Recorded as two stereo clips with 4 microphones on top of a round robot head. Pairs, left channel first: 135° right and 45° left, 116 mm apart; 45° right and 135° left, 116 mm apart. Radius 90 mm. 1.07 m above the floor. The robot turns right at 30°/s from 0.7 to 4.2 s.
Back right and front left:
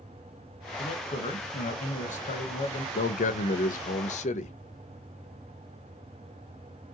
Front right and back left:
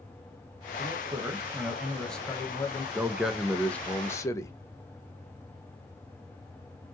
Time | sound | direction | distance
0.8 | a man speaking | 170° right | 1.1 m
3.0 | a man speaking | 150° right | 0.7 m